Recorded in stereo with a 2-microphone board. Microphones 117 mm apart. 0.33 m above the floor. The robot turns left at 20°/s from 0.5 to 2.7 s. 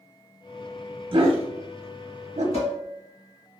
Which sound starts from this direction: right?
A dog barking, at 1.1 s.